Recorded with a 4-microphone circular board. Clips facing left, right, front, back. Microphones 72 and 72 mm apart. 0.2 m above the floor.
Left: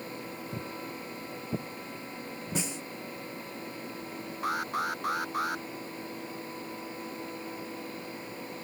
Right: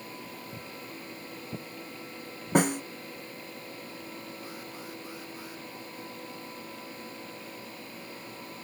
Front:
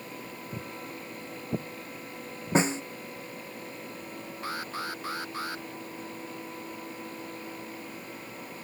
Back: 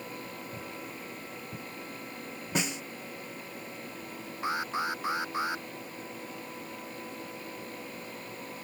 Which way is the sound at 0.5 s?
45° left.